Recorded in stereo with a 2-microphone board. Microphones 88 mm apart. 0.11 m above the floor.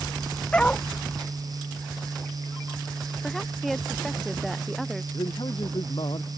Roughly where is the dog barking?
Centre.